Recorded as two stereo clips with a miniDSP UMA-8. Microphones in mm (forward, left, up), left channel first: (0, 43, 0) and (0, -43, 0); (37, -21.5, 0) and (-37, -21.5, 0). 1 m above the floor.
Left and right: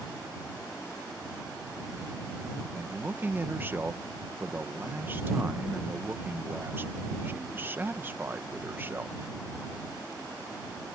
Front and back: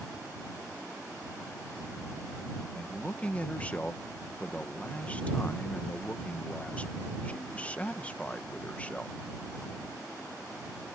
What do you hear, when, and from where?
2.8 s a man speaking: 50° right